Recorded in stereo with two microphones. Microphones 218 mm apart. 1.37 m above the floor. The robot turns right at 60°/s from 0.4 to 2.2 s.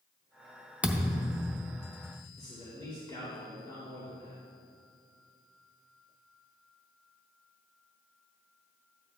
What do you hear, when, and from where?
0.8 s a thud: 5° right (ahead or behind), 0.7 m; by 1.5 s 20° right (ahead or behind), 0.7 m
2.4 s a man speaking: 20° left (ahead or behind), 2.5 m